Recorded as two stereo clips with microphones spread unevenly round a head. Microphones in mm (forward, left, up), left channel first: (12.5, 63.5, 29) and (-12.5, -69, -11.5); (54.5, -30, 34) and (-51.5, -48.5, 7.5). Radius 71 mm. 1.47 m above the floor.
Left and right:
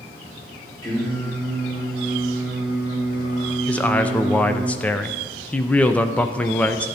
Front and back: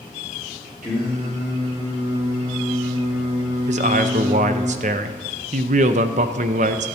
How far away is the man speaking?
About 0.6 m.